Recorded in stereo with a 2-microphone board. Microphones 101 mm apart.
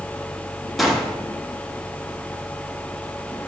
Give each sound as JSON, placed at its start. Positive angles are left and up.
{"t": 0.8, "sound": "a gunshot", "side_deg": 0, "distance_m": 1.0}